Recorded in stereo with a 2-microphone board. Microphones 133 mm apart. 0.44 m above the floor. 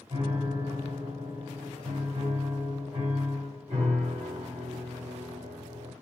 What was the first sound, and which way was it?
A piano, 65° right (ahead or behind).